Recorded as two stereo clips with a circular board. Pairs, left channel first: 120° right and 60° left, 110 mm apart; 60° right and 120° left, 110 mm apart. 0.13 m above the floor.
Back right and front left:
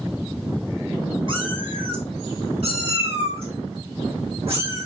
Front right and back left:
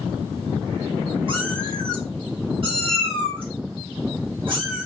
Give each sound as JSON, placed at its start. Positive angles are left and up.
{"t": 1.3, "sound": "a cat meowing", "azimuth_deg": 90, "distance_m": 1.7}